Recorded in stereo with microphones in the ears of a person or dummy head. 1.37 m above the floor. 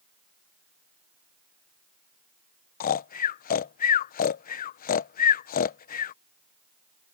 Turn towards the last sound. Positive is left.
turn(degrees=45)  # may be behind; listen again after turning